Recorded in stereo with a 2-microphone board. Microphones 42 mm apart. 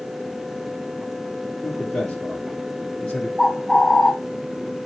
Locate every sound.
1.6 s a man speaking: 35° left (ahead or behind), 1.8 m
3.4 s a bird: 10° left (ahead or behind), 1.1 m